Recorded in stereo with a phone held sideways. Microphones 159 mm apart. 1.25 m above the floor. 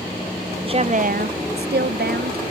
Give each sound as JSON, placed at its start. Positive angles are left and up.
{"t": 0.6, "sound": "a woman speaking", "side_deg": -30}